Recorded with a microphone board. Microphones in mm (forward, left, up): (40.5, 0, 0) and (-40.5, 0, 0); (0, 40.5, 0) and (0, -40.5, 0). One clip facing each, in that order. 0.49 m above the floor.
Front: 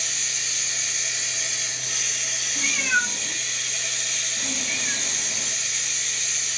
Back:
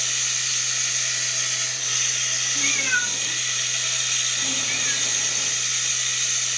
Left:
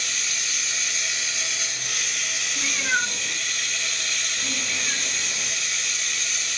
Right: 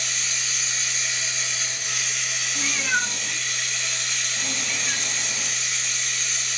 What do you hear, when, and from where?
0.0 s running water: 160° right, 1.3 m
2.5 s a cat meowing: 100° right, 1.2 m